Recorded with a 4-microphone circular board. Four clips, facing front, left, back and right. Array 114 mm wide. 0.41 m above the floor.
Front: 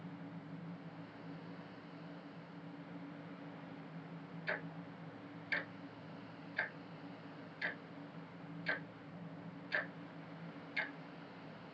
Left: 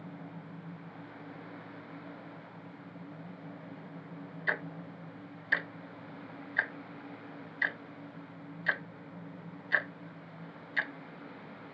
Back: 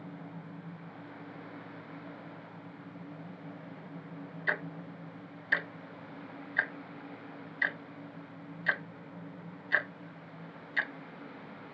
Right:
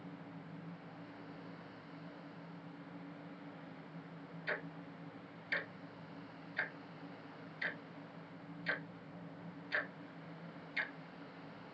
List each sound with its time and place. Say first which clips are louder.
4.5 s ticking: left 7 dB, back 8 dB; 135° left, 0.5 m